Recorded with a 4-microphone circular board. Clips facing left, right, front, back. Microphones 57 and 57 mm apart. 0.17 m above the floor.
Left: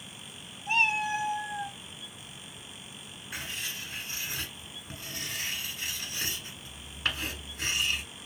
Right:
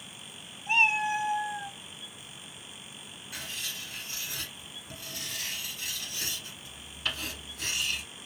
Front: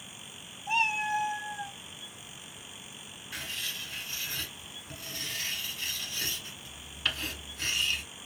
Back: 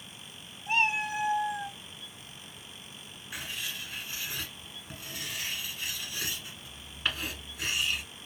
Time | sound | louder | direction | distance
0.7 | a cat meowing | right 2 dB, even | 155° right | 1.6 m
3.3 | writing | left 2 dB, even | 110° left | 1.2 m